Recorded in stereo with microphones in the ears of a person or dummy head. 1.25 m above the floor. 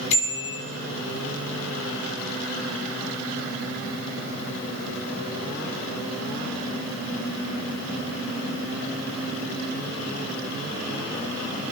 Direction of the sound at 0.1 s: 35° left (ahead or behind).